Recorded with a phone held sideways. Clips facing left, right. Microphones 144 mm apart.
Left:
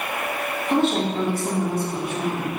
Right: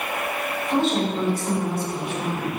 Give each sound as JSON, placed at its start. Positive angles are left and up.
{"t": 0.7, "sound": "a woman speaking", "side_deg": 60, "distance_m": 2.5}